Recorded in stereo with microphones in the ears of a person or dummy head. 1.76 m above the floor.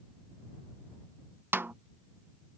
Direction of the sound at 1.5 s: 10° right (ahead or behind).